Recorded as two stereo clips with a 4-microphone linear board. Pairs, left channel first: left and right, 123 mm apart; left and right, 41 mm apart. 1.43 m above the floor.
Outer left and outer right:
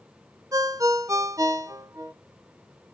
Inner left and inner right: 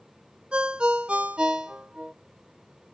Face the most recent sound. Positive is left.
turn(degrees=-25)  # may be behind; listen again after turning